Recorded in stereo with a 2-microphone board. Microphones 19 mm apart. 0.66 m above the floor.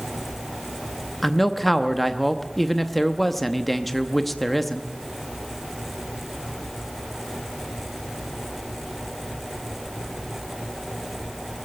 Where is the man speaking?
5° left (ahead or behind), 0.7 m.